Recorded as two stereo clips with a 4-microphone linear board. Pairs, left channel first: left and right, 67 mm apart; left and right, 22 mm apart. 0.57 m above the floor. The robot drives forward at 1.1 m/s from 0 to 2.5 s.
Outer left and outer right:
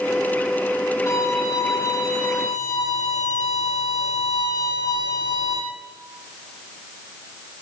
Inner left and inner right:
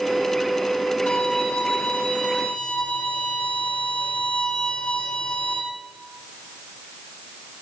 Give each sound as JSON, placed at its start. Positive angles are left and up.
{"t": 1.1, "sound": "a violin", "side_deg": 60, "distance_m": 7.5}